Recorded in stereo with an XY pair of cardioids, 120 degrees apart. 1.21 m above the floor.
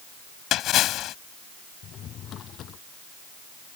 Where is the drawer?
55° left.